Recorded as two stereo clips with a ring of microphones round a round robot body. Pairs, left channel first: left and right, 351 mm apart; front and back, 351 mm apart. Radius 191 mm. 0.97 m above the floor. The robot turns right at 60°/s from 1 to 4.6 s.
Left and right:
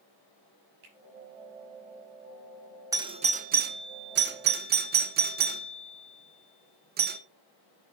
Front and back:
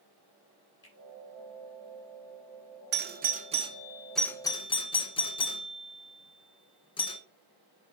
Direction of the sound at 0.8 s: 80° right.